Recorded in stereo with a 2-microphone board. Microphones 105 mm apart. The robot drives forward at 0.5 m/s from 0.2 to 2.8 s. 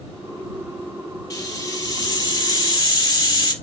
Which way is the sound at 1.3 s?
30° left (ahead or behind).